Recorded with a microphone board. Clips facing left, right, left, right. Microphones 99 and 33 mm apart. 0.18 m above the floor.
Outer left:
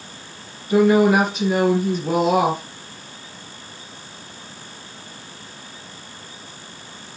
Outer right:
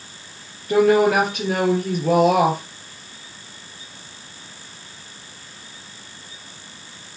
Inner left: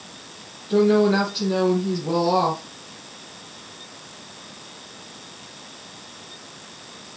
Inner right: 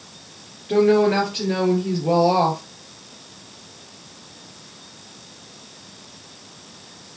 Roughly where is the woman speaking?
Right.